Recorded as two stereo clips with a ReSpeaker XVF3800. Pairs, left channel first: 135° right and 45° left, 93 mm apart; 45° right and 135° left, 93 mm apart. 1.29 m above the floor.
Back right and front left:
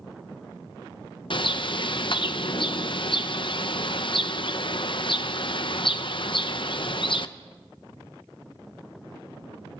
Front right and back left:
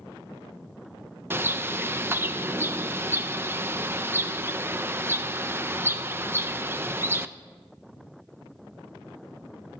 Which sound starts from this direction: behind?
A bird, at 1.3 s.